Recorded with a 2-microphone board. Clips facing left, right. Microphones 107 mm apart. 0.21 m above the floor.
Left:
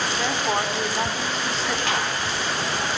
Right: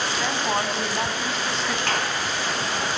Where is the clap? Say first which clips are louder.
Even; centre (ahead or behind), 3.5 m.